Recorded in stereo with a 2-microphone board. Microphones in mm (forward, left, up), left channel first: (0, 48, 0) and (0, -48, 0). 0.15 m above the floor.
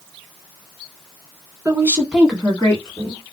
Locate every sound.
1.6 s a woman speaking: 30° right (ahead or behind), 1.3 m; by 3.2 s 45° left (ahead or behind), 1.5 m